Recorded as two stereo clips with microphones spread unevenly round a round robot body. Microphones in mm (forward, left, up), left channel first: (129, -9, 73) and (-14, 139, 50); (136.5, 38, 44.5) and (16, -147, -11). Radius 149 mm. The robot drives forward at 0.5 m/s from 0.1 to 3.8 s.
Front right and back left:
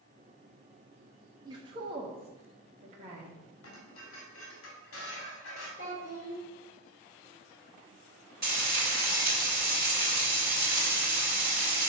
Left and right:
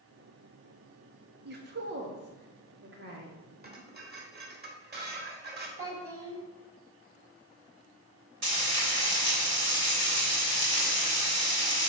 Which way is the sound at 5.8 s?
105° right.